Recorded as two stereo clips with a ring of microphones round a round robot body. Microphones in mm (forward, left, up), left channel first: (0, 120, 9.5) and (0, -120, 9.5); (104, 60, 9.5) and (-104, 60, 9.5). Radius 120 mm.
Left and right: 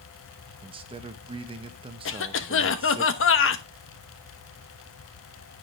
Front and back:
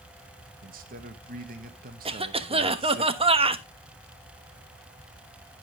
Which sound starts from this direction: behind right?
A man speaking, at 0.6 s.